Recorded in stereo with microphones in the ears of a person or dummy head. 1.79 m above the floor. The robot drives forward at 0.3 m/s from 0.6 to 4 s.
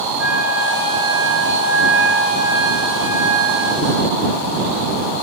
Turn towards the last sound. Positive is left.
turn(degrees=0)  # may be behind; listen again after turning